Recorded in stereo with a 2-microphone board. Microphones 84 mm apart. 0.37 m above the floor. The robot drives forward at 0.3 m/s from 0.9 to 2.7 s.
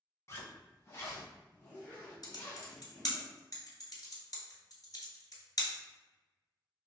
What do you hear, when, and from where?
0.3 s a zipper: 35° left (ahead or behind), 1.2 m; by 3.2 s 25° left (ahead or behind), 1.7 m
2.2 s typing on a keyboard: 55° left (ahead or behind), 0.9 m; by 5.8 s 50° left (ahead or behind), 1.0 m